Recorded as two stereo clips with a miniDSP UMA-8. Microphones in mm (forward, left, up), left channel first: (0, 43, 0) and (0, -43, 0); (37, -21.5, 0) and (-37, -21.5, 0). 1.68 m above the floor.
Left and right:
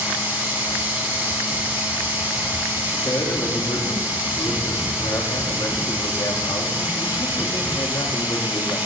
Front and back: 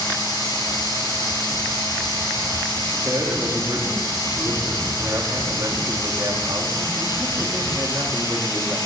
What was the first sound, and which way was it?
Running water, 20° right.